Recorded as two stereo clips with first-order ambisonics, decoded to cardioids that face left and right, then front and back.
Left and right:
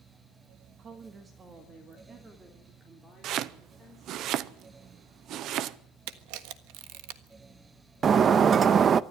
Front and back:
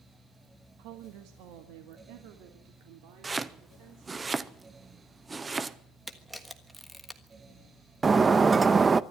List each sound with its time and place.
0.8 s a woman speaking: 155° right, 1.4 m; by 4.2 s 165° right, 4 m
3.2 s chopping: 110° right, 0.6 m
6.1 s a camera shutter: 95° right, 1.4 m
8.0 s breaking glass: 120° right, 0.5 m